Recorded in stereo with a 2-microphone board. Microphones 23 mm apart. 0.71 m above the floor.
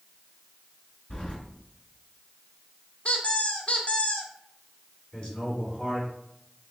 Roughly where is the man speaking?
Left.